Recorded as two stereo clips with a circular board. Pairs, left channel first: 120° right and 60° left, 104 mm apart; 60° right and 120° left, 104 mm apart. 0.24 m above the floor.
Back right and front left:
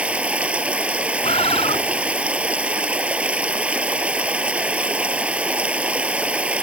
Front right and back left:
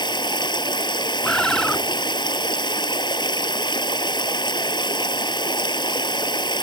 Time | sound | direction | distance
0.0 | running water | 20° right | ?
1.2 | a bird | 145° right | ?